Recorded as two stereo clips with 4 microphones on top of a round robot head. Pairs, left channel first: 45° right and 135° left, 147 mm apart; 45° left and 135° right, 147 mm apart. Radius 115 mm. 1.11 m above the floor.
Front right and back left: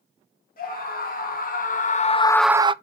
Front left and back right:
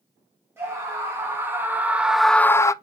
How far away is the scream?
About 2.5 m.